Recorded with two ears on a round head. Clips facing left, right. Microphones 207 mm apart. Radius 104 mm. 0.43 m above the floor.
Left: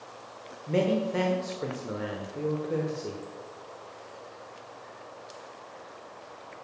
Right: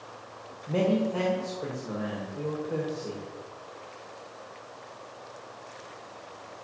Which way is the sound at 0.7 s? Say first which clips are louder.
Even; 30° left (ahead or behind).